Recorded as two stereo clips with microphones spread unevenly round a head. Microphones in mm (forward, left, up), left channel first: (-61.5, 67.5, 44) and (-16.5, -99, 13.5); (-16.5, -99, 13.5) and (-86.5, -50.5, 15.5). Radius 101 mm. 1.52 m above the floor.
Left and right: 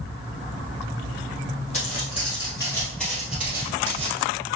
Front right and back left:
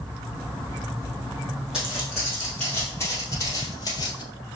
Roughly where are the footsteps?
Ahead left.